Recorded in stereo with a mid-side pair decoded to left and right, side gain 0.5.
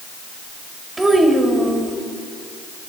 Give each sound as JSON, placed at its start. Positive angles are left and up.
{"t": 1.0, "sound": "a child speaking", "azimuth_deg": -25, "distance_m": 2.5}